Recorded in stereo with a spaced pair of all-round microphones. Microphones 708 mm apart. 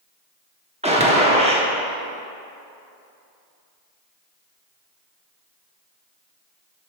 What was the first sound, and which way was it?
A gunshot, 10° right (ahead or behind).